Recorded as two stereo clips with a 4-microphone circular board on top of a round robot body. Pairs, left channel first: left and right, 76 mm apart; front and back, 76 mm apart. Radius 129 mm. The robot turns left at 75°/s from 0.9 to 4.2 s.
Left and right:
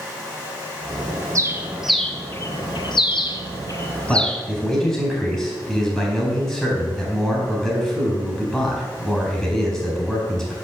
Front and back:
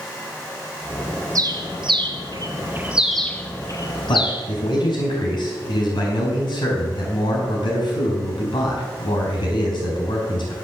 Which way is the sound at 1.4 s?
140° right.